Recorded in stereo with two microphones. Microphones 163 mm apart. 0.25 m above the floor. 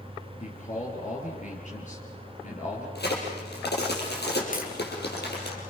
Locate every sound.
0.4 s a man speaking: 45° left (ahead or behind), 4.5 m
3.0 s a crack: 75° left (ahead or behind), 6 m
4.5 s tapping: 55° left (ahead or behind), 4.5 m